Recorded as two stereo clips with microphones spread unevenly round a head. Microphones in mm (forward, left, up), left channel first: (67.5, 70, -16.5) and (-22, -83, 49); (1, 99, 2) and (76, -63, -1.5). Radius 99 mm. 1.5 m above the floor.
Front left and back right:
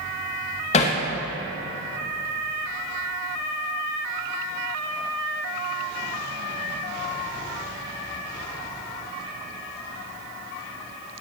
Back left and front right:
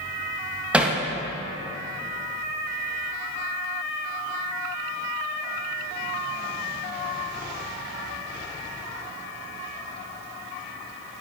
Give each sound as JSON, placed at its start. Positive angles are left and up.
{"t": 0.7, "sound": "hammering", "azimuth_deg": 10, "distance_m": 0.8}